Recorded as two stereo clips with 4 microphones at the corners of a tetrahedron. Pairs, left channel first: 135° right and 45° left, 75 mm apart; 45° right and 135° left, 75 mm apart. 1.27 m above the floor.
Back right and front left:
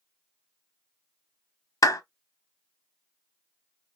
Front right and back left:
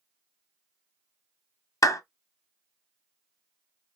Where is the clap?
90° right, 0.8 m.